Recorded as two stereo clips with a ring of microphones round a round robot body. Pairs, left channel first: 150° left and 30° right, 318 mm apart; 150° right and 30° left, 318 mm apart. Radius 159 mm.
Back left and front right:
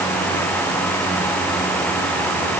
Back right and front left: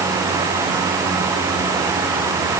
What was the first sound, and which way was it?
Only background noise.